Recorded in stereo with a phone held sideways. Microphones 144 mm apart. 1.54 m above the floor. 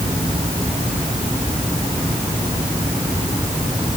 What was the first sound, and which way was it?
Only background noise.